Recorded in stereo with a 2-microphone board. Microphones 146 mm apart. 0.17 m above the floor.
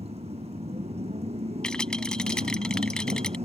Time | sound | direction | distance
0.0 | a motorcycle | 45° right (ahead or behind) | ?
1.6 | a rattle | 5° left (ahead or behind) | ?